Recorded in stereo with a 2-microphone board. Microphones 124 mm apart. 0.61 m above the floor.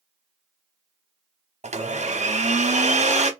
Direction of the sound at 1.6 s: 65° right (ahead or behind).